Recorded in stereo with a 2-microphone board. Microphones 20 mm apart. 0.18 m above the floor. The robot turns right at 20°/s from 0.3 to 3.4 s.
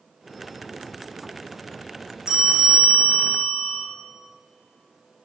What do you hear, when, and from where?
2.3 s a bell: 45° right (ahead or behind), 3 m; by 3.8 s 70° right (ahead or behind), 3 m